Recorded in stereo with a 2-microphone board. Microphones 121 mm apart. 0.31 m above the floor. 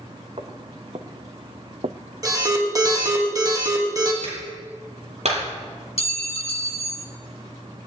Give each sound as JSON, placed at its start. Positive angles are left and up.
{"t": 0.4, "sound": "footsteps", "side_deg": -55, "distance_m": 2.0}
{"t": 2.2, "sound": "an alarm", "side_deg": -30, "distance_m": 3.5}
{"t": 4.2, "sound": "a clap", "side_deg": -70, "distance_m": 7.5}
{"t": 6.0, "sound": "a clink", "side_deg": 60, "distance_m": 1.7}